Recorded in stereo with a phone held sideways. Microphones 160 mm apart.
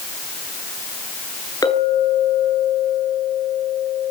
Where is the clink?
25° left (ahead or behind), 8 m.